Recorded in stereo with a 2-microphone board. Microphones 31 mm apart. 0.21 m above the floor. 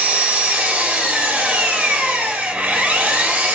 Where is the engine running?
50° right (ahead or behind), 1.7 m.